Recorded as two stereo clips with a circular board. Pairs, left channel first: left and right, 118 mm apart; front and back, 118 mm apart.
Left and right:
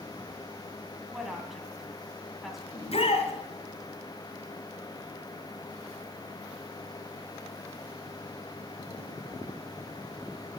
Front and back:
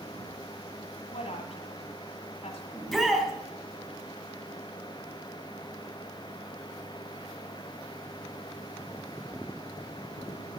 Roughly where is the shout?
Left.